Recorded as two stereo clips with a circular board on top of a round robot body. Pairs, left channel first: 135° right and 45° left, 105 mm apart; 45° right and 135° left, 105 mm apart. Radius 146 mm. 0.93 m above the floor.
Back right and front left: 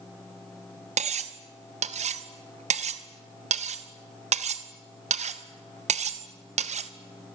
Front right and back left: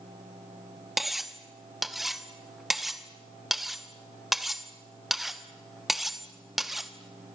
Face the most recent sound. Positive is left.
turn(degrees=45)